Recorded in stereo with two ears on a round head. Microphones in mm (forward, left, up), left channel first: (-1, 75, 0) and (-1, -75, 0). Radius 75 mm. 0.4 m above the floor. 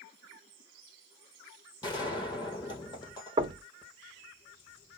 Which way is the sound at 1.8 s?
25° left (ahead or behind).